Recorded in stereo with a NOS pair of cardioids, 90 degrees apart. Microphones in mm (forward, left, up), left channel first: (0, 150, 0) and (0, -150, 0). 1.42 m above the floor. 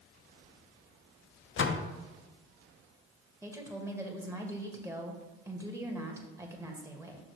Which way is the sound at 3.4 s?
10° right.